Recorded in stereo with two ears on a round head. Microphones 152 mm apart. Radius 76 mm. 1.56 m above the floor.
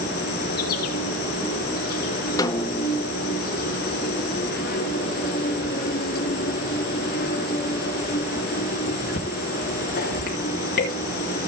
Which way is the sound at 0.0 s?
60° left (ahead or behind).